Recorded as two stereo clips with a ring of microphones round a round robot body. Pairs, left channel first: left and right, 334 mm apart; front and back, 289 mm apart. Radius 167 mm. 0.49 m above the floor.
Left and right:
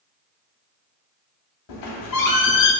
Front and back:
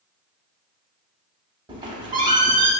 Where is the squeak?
105° left, 0.7 m.